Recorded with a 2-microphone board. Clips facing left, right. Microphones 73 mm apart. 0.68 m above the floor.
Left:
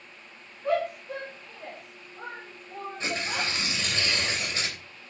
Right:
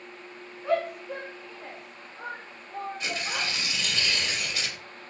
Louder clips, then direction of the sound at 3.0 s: Left 4 dB; 30° left (ahead or behind).